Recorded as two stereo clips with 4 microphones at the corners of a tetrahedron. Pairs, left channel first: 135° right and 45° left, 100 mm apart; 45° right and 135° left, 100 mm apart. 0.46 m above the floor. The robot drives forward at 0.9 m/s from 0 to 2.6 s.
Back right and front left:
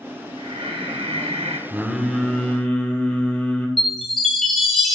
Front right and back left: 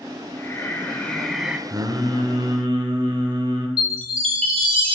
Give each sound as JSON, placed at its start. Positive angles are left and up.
{"t": 0.4, "sound": "breathing", "azimuth_deg": 20, "distance_m": 1.4}
{"t": 1.7, "sound": "singing", "azimuth_deg": 115, "distance_m": 1.0}
{"t": 3.8, "sound": "a chime", "azimuth_deg": 135, "distance_m": 1.5}